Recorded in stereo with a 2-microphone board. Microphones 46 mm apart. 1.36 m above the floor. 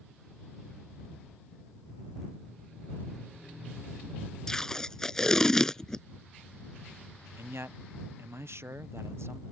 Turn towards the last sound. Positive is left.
turn(degrees=-70)  # may be behind; listen again after turning